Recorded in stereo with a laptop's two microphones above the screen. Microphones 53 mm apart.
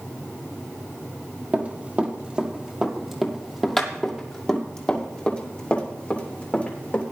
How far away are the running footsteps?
About 1.9 m.